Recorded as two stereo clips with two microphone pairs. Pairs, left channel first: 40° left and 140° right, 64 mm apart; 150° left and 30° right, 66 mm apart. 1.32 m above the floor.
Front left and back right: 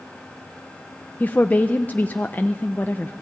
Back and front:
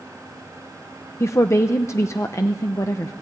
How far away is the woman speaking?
About 0.9 m.